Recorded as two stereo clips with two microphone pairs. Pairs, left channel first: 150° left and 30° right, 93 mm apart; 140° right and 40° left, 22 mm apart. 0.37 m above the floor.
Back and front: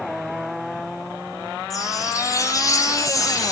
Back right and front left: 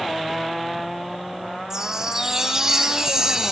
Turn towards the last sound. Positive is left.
turn(degrees=100)